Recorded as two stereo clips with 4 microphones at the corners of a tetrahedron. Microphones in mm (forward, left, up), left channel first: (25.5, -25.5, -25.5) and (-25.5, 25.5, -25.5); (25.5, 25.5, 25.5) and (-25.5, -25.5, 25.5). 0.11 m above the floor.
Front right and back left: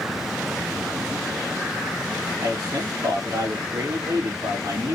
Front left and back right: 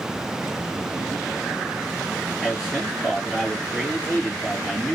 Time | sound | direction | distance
2.4 | a man speaking | 145° left | 3 m